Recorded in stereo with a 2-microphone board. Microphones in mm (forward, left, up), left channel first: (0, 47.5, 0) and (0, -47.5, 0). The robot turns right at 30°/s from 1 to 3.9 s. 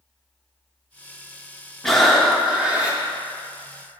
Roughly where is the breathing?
Behind.